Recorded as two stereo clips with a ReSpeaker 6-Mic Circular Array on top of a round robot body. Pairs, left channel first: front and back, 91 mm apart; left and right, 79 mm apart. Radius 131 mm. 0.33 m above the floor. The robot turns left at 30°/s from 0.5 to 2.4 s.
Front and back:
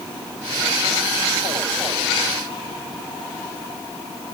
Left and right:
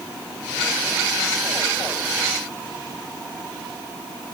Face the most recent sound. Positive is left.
No sound to turn to.